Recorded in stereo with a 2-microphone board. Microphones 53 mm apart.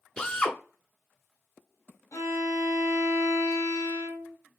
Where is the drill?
15° left (ahead or behind), 1.1 m.